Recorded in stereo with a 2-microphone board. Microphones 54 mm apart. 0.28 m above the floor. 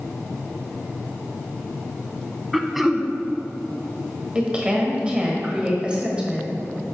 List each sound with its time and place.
2.5 s throat clearing: centre (ahead or behind), 0.5 m
4.3 s a woman speaking: 20° right (ahead or behind), 1.2 m